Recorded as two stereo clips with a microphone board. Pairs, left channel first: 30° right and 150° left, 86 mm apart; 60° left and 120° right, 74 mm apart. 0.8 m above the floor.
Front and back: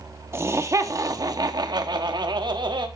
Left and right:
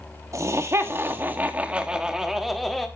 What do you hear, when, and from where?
0.3 s laughter: 155° right, 1.3 m; by 2.9 s 145° left, 1.6 m